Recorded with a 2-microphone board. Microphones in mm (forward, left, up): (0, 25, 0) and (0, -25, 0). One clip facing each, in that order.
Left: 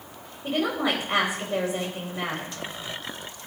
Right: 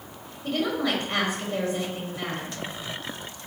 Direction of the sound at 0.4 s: 15° left (ahead or behind).